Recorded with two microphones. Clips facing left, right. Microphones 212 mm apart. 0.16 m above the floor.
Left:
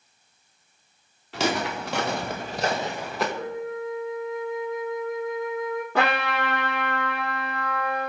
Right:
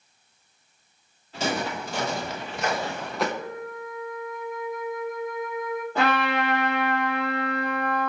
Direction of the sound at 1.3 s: 85° left.